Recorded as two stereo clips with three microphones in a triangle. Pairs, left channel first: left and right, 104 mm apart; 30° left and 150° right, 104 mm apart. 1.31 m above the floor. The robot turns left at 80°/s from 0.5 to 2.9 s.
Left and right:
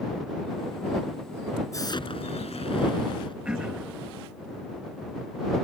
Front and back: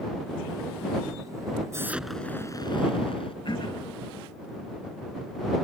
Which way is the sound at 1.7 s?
150° left.